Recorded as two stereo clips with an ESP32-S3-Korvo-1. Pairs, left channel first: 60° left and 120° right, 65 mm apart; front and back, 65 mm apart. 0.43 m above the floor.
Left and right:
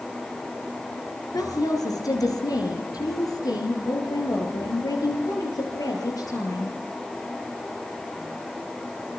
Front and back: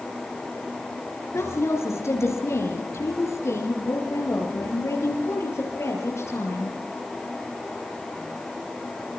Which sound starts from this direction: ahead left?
A woman speaking, at 1.3 s.